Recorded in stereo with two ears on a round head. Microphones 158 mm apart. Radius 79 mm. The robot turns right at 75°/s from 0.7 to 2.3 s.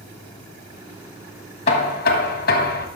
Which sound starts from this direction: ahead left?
Knocking, at 1.7 s.